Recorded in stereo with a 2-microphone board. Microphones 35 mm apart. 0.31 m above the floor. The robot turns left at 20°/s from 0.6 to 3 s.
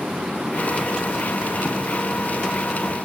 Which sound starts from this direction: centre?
Writing, at 1.6 s.